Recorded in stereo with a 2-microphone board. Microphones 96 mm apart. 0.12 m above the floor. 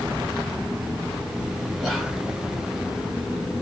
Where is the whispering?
Centre (ahead or behind), 1.5 m.